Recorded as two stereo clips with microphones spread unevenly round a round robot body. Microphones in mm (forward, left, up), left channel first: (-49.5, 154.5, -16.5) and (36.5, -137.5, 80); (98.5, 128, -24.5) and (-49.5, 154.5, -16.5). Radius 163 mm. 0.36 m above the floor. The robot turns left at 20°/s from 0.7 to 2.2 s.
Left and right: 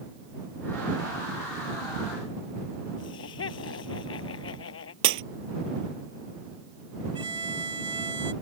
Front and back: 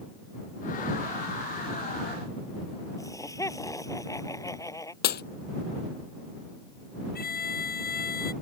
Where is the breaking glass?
20° right.